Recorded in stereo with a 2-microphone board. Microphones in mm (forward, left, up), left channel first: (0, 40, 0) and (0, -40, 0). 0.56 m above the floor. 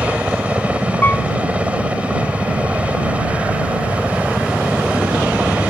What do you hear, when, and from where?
0.0 s a helicopter: 15° right (ahead or behind)
1.0 s a piano: 25° left (ahead or behind)